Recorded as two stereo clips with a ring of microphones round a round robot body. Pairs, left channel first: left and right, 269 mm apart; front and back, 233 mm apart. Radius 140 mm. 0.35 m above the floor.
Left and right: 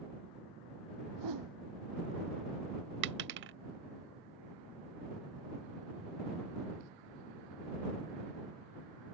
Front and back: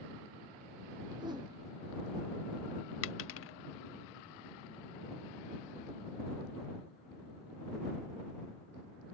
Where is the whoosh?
105° right.